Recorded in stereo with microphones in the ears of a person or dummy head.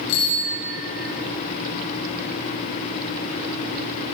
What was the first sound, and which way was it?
A bicycle bell, 75° left (ahead or behind).